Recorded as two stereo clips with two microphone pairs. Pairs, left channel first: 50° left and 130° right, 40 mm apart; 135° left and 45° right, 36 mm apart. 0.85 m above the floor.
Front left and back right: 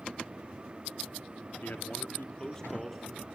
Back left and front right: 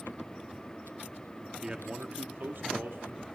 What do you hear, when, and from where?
1.6 s a man speaking: 20° left, 1.4 m; by 3.2 s 45° right, 2 m